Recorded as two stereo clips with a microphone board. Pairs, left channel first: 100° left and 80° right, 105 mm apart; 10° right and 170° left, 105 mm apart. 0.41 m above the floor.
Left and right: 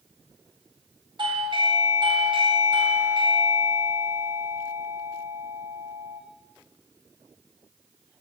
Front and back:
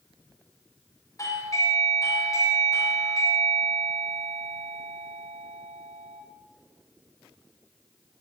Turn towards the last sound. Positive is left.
turn(degrees=-60)